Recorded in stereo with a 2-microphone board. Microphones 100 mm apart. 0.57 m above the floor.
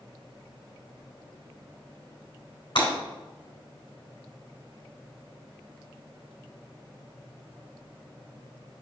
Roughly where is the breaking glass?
Left.